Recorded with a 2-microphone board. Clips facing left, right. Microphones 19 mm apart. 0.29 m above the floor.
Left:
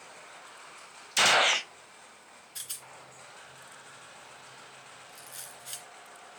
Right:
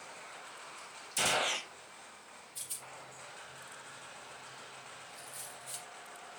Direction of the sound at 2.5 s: 70° left (ahead or behind).